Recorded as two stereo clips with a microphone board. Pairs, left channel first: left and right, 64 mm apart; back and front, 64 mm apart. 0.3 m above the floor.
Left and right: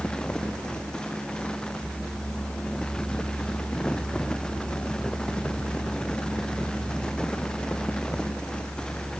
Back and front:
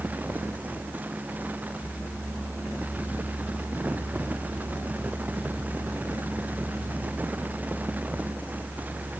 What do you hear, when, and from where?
Only background noise.